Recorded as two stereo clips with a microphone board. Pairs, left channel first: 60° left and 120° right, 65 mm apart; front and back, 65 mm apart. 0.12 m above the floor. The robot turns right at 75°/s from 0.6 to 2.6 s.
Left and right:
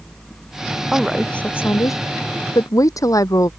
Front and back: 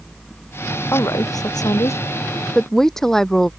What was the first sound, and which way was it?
A woman speaking, 45° right.